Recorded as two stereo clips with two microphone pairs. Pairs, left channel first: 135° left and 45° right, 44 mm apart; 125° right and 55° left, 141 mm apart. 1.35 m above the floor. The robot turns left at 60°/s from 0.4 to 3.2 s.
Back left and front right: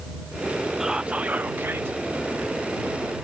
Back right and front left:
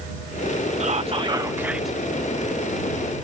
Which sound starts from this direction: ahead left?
Whispering, at 0.8 s.